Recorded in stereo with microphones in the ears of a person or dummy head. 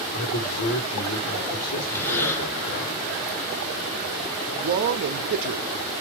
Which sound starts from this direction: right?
A man speaking, at 4.6 s.